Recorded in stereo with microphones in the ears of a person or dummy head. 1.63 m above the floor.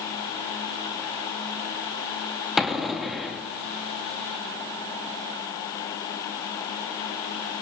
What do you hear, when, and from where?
2.6 s an explosion: 5° left (ahead or behind), 2 m